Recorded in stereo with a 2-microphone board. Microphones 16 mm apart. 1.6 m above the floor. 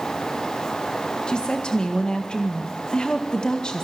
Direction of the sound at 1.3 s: 75° left (ahead or behind).